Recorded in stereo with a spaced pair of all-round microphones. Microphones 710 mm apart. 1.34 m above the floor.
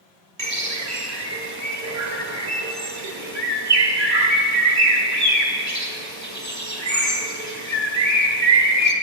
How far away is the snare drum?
No snare drum in this recording.